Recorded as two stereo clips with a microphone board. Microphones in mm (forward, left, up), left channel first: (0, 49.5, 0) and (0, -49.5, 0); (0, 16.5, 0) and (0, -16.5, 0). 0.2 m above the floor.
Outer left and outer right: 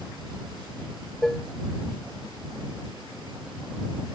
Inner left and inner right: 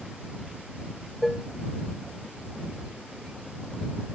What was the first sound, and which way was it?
Dishes clattering, 5° left (ahead or behind).